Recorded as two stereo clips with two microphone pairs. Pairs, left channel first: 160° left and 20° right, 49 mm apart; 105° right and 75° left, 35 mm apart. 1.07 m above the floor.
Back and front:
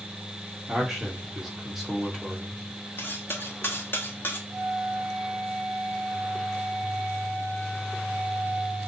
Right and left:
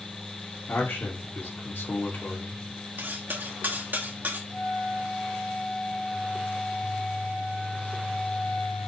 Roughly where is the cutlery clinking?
Behind left.